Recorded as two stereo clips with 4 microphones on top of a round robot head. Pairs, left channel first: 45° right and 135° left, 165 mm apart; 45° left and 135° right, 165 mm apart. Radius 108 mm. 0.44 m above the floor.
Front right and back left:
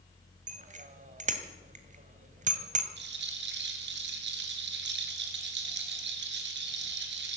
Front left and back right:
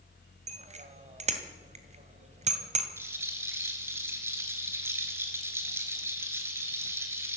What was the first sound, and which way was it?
A bicycle bell, 175° left.